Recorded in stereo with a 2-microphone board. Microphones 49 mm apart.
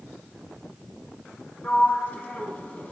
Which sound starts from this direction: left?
A sliding door, at 1.6 s.